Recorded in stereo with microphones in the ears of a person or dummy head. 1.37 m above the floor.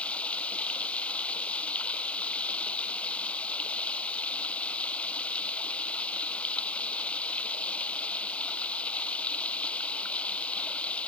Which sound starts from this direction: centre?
Running water, at 0.0 s.